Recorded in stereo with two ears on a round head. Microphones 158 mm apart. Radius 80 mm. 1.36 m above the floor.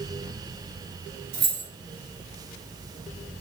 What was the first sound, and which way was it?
Keys jangling, 60° right (ahead or behind).